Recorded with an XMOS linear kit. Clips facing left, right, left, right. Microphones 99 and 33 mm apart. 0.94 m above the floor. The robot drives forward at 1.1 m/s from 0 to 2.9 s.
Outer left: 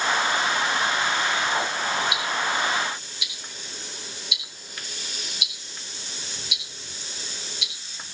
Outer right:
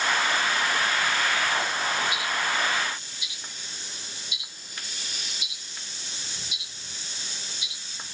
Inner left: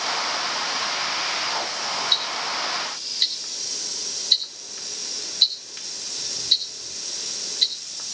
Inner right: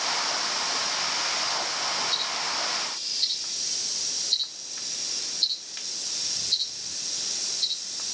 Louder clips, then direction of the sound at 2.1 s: Outer left 2 dB, inner left 4 dB; 80° left.